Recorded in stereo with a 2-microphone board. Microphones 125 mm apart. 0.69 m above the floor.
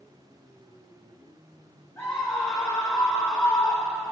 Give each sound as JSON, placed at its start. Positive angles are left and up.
{"t": 2.0, "sound": "a scream", "side_deg": 20, "distance_m": 5.0}